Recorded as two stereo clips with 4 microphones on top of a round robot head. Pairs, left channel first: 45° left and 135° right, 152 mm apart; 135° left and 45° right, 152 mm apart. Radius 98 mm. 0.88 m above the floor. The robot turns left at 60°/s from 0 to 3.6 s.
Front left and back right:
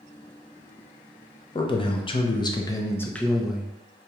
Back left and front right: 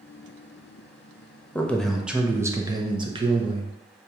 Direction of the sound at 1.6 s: 65° left.